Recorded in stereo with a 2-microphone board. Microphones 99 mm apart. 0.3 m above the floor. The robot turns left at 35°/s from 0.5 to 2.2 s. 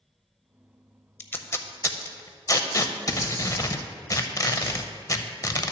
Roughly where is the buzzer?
No buzzer in this recording.